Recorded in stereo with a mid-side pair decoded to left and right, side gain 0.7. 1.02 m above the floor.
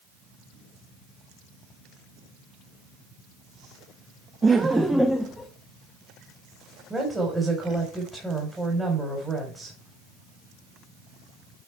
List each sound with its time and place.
4.4 s laughter: 20° right, 0.8 m; by 5.5 s 15° left, 1.2 m
6.9 s a woman speaking: 10° right, 4 m